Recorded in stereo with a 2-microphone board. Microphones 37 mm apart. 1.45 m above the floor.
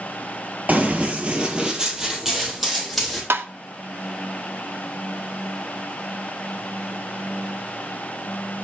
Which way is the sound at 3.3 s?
85° right.